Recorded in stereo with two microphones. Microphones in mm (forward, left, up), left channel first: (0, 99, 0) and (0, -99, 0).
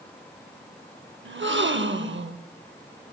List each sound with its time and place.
1.2 s a gasp: 70° right (ahead or behind), 0.6 m